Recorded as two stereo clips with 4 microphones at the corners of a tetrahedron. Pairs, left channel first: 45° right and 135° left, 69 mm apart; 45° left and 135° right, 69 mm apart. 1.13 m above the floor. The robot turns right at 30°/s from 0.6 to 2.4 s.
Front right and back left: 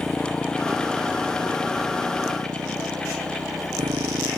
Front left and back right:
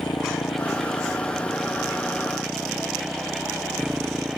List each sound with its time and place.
0.0 s a motorcycle: 40° left; by 4.4 s 150° left